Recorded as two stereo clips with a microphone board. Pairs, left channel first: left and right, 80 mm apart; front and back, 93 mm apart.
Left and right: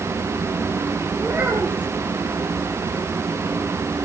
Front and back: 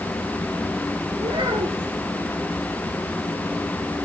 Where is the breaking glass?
No breaking glass in this recording.